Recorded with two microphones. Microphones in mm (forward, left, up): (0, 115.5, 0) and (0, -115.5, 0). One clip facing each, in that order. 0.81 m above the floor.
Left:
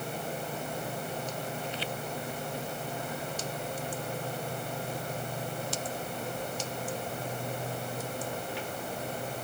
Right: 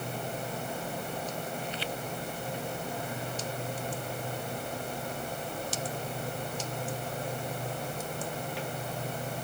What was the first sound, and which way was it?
Only background noise.